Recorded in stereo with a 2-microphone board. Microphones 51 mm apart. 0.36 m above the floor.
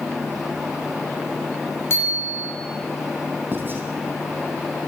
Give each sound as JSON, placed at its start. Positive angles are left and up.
{"t": 1.9, "sound": "a bicycle bell", "side_deg": 50, "distance_m": 7.0}
{"t": 3.5, "sound": "writing", "side_deg": -45, "distance_m": 3.0}